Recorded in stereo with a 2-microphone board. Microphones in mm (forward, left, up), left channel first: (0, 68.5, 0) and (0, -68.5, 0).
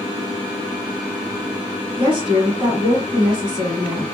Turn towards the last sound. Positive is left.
turn(degrees=-35)  # may be behind; listen again after turning